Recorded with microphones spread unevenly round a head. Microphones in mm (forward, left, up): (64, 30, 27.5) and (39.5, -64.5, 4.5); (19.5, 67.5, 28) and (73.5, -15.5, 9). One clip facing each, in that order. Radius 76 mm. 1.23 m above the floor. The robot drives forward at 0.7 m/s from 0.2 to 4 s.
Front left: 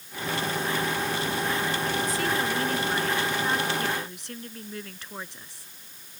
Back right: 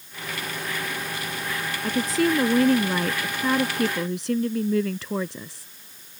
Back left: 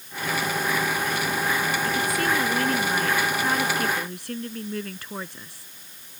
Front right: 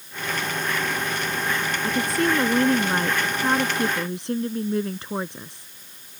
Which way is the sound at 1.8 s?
130° right.